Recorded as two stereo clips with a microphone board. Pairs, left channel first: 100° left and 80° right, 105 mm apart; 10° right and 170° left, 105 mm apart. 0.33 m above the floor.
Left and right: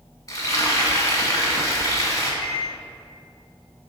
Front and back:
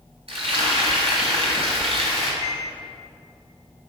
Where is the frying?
155° left, 2.0 m.